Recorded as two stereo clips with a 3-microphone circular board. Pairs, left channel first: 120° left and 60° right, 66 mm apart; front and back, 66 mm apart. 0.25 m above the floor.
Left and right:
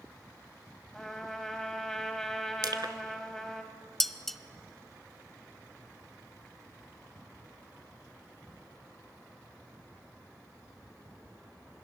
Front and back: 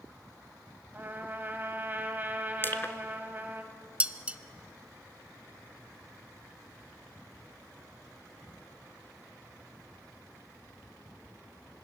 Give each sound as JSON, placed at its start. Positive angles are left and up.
{"t": 0.9, "sound": "a trumpet", "azimuth_deg": -160, "distance_m": 1.7}
{"t": 2.6, "sound": "crushing", "azimuth_deg": -55, "distance_m": 1.2}
{"t": 4.0, "sound": "dishes clattering", "azimuth_deg": -160, "distance_m": 0.7}